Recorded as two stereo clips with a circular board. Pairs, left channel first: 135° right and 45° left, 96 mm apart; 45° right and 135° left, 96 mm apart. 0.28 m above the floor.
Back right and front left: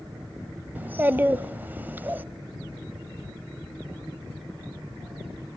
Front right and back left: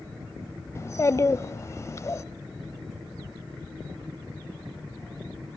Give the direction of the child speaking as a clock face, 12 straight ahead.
12 o'clock.